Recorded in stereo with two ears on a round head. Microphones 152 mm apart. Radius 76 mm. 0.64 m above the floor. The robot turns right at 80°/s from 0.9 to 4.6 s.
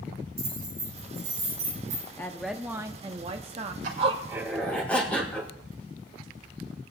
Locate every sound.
0.4 s keys jangling: 20° right (ahead or behind), 8.5 m; by 2.1 s 70° right (ahead or behind), 8.5 m
2.2 s a woman speaking: 155° left, 0.7 m; by 3.7 s 75° right, 0.7 m
3.8 s a zipper: 50° right, 3 m; by 5.5 s 10° left, 3 m